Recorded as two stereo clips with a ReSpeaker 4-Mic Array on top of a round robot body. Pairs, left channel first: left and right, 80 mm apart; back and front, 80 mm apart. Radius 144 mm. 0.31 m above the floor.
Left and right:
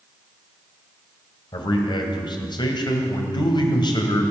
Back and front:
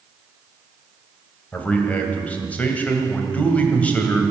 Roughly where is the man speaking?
Left.